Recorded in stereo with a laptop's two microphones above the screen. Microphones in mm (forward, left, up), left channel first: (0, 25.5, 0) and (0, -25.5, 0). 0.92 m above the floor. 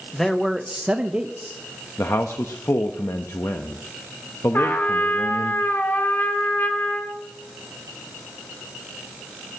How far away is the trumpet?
About 1.2 m.